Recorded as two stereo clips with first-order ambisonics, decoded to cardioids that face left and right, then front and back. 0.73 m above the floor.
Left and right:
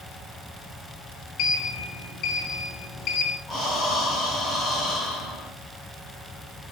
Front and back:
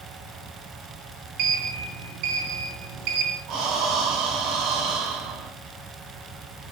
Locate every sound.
1.4 s a sliding door: 145° left, 4 m
3.5 s breathing: straight behind, 3.5 m